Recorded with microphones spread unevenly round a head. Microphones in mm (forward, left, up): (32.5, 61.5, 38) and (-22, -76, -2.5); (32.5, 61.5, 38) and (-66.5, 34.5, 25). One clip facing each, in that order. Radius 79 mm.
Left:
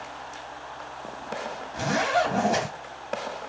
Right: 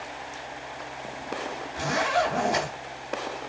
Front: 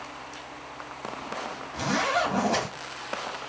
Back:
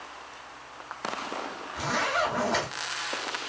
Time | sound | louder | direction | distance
1.7 | a zipper | left 1 dB, front 2 dB | 10° left | 3.5 m